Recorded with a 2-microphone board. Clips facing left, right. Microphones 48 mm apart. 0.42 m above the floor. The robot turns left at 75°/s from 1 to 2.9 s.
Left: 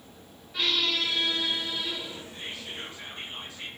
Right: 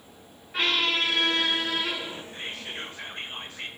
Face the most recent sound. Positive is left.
turn(degrees=-110)